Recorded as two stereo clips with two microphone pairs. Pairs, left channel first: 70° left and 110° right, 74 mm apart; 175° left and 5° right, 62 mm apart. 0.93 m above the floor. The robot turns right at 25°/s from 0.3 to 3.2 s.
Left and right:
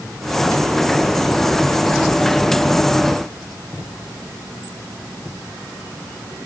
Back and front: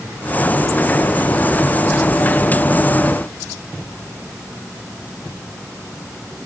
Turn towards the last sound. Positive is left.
No sound to turn to.